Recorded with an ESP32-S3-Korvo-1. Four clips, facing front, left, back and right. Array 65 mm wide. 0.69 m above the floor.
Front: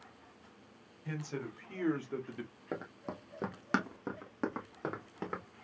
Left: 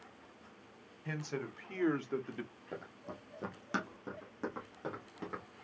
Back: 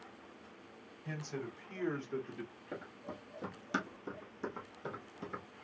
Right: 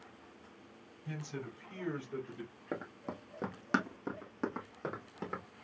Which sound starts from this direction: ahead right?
Running footsteps, at 2.7 s.